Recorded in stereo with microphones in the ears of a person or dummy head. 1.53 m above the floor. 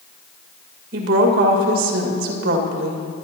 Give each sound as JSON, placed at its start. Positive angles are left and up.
{"t": 0.9, "sound": "a woman speaking", "side_deg": -60, "distance_m": 2.0}